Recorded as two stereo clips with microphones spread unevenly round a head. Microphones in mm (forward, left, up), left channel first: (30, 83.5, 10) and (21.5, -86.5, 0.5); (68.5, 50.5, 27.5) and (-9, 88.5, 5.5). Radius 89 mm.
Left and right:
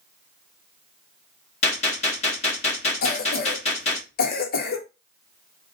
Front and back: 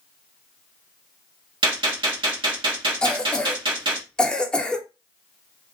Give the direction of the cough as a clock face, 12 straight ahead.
10 o'clock.